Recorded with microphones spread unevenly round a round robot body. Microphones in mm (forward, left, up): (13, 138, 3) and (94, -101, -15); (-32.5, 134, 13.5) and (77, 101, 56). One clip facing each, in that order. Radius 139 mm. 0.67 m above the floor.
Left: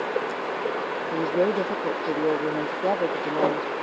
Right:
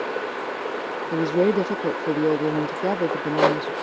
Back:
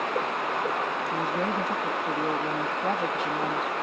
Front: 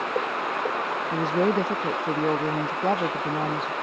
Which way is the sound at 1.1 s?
90° right.